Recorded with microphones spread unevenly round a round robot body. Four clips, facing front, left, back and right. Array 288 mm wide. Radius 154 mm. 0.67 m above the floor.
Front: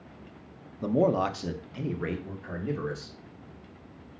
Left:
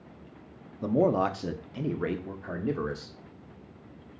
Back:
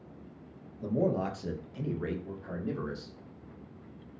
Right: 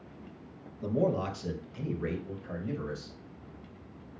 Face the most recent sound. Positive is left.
turn(degrees=90)